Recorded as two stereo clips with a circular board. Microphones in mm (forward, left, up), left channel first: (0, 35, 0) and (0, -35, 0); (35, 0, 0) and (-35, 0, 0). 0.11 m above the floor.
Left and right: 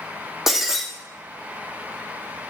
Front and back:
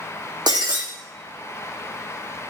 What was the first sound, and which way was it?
Breaking glass, 175° right.